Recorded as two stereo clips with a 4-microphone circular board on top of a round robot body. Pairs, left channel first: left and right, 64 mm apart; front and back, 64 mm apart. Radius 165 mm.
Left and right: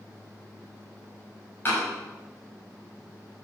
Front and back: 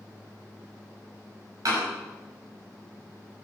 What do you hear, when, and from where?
1.6 s a door slam: 150° left, 6 m